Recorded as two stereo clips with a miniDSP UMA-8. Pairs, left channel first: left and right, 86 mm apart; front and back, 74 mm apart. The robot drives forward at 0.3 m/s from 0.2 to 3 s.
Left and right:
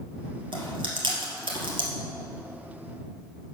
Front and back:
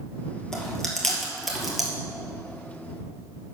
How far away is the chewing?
About 1.9 m.